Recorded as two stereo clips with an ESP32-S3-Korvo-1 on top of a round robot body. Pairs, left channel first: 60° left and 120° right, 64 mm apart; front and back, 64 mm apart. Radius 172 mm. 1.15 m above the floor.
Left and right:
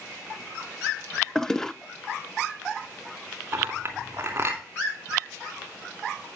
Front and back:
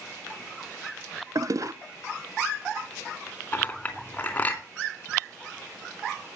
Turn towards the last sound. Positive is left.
turn(degrees=-65)